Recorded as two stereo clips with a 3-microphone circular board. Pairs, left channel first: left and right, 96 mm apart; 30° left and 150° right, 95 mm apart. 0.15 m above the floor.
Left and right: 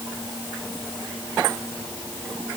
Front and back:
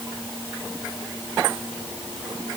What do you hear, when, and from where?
Only background noise.